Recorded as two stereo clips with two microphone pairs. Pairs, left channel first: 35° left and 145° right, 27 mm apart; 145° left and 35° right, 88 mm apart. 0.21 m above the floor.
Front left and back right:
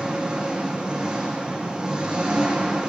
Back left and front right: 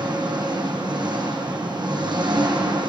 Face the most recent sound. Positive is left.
turn(degrees=-75)